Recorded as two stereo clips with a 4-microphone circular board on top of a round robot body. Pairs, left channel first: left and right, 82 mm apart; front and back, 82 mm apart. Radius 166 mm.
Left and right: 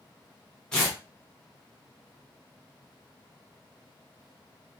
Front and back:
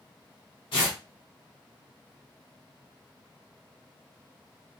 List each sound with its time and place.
0.7 s tearing paper: 10° left, 0.6 m